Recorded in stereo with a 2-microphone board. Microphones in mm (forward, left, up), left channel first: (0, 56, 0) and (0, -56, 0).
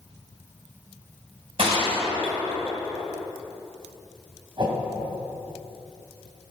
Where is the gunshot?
60° right (ahead or behind), 3.5 m.